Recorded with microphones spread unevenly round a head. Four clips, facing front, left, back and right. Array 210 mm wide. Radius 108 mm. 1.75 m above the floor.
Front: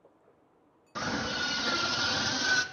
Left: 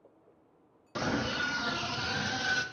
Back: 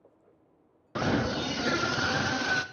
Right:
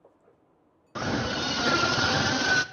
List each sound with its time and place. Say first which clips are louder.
0.9 s a scream: right 3 dB, back 5 dB; straight behind, 0.5 m; by 2.6 s 85° right, 0.8 m